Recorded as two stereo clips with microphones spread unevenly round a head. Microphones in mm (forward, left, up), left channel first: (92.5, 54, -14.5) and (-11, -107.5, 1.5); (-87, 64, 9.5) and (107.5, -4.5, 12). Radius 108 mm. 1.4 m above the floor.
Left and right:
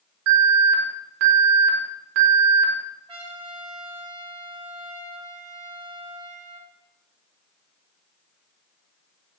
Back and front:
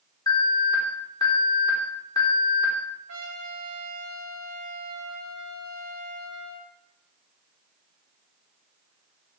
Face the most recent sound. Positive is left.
turn(degrees=-60)